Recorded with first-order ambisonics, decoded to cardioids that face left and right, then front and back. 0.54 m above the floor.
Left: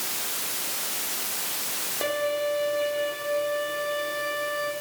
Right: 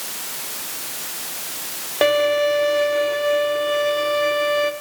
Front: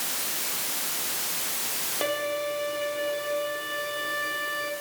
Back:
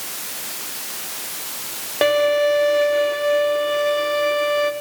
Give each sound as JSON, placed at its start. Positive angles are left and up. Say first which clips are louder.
{"t": 2.0, "sound": "a violin", "louder": "right 10 dB, back 13 dB", "azimuth_deg": -135, "distance_m": 1.1}